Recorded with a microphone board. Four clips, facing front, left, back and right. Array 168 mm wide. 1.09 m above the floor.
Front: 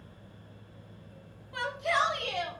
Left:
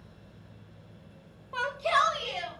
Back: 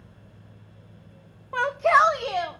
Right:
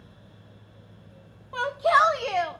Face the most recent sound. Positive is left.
turn(degrees=-120)